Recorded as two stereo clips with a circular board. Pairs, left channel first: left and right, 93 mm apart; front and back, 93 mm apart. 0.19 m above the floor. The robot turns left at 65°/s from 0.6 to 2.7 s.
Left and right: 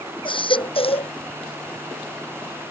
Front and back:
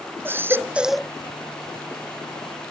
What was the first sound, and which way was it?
A baby crying, 115° left.